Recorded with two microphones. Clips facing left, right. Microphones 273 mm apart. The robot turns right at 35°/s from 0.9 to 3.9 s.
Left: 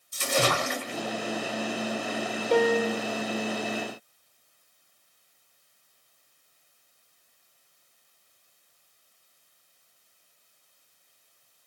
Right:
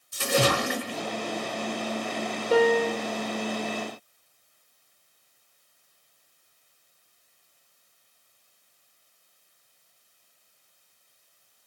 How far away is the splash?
About 1.3 m.